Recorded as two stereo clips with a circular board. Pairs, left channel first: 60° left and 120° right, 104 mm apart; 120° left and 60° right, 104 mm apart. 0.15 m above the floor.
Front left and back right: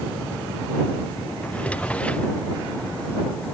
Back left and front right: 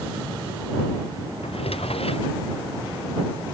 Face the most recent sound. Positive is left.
turn(degrees=140)